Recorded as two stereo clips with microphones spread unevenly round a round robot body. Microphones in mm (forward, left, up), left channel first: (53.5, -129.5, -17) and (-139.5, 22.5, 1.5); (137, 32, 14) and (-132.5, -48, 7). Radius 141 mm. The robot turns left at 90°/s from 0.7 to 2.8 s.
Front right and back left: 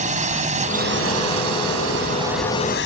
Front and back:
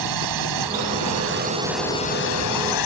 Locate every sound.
0.0 s a drone: 160° right; by 2.9 s 15° left